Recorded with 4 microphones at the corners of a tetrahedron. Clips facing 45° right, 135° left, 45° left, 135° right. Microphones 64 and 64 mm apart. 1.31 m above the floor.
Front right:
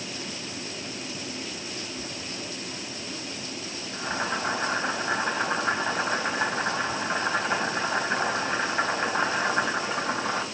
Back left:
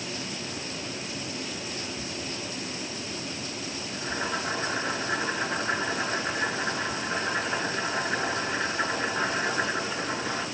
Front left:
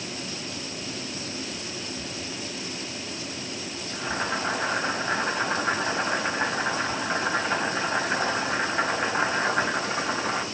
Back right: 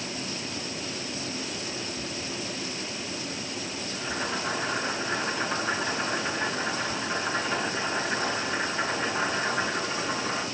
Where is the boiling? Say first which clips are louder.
Front right 2 dB, front left 4 dB; 5° right, 3.5 m.